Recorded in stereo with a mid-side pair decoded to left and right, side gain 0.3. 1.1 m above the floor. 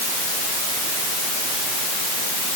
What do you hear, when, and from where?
Only background noise.